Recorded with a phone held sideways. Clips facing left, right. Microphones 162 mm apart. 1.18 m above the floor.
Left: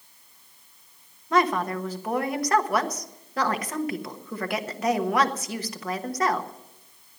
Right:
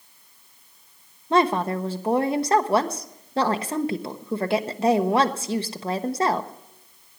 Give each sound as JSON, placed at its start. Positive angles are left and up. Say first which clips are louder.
{"t": 1.3, "sound": "a woman speaking", "louder": "right 3 dB", "side_deg": -30, "distance_m": 1.1}